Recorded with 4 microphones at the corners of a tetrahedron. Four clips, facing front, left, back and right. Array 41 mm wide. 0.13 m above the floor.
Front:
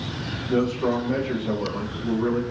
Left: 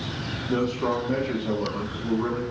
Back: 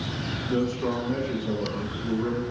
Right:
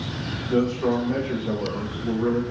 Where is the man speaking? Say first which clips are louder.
Right 3 dB, front 4 dB; 75° left, 5.5 m.